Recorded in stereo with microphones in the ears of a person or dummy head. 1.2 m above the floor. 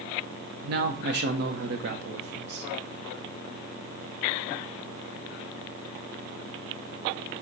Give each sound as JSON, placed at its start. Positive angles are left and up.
{"t": 0.6, "sound": "a man speaking", "side_deg": -50, "distance_m": 0.7}